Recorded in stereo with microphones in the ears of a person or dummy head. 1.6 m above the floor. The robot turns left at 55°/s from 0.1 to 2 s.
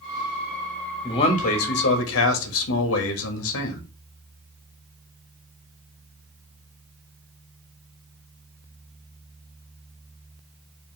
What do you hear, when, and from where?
1.0 s a man speaking: 155° left, 1.0 m; by 3.8 s 105° left, 1.0 m